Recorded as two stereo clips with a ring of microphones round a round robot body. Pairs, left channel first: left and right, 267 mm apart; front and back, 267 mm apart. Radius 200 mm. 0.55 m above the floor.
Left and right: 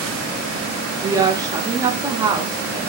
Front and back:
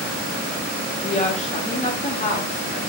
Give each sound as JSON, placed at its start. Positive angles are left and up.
{"t": 1.0, "sound": "a woman speaking", "azimuth_deg": -25, "distance_m": 0.8}